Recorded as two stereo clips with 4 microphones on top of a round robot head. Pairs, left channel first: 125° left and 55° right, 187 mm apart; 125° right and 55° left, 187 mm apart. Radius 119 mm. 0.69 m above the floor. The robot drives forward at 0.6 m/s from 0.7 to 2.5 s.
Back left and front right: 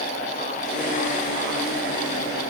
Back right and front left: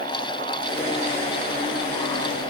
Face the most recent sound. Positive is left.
No sound to turn to.